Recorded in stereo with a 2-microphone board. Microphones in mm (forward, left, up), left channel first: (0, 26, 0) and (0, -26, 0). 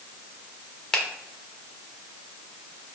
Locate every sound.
0.9 s a finger snap: 10° left (ahead or behind), 0.8 m